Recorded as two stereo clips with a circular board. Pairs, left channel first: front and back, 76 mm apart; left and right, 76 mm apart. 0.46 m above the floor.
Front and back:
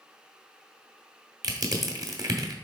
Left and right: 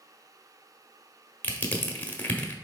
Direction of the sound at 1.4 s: 155° left.